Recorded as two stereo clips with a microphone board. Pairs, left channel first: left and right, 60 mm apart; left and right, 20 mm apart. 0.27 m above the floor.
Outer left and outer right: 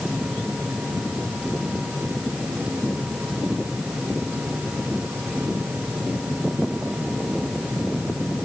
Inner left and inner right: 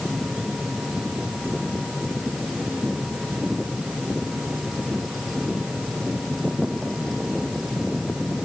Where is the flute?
I don't hear a flute.